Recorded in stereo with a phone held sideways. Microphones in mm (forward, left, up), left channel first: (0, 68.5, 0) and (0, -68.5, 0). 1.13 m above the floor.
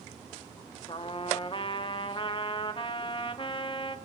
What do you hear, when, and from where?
0.9 s a trumpet: 40° left (ahead or behind), 0.7 m